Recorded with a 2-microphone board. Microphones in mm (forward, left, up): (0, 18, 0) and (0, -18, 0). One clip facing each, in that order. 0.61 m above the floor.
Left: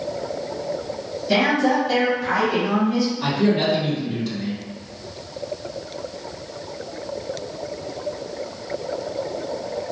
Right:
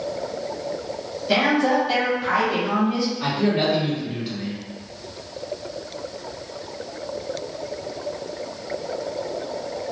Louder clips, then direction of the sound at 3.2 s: Left 1 dB; 10° right (ahead or behind).